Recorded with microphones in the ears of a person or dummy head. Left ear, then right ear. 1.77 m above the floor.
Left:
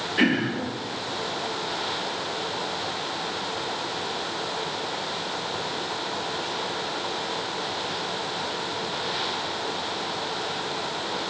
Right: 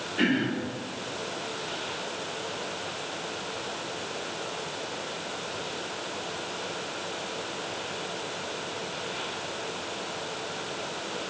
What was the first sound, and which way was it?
Throat clearing, 30° left (ahead or behind).